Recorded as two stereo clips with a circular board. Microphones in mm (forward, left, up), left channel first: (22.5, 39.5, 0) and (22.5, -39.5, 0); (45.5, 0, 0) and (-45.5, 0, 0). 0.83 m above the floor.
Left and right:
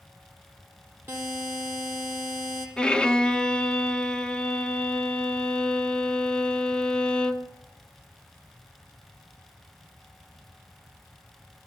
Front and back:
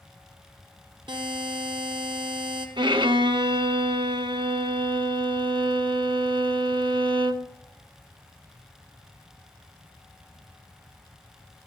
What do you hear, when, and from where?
1.1 s a buzzer: 155° right, 4 m
2.8 s a violin: 170° left, 1.1 m